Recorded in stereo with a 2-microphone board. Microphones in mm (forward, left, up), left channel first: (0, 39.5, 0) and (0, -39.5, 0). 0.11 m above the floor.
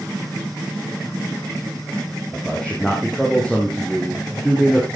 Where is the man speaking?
20° left (ahead or behind), 4 m; by 4.9 s 5° right (ahead or behind), 4.5 m.